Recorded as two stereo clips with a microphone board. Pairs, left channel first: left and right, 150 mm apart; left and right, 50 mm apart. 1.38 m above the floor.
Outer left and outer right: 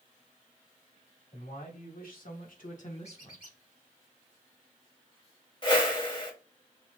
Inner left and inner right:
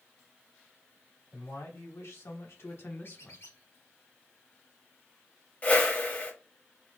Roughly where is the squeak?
Left.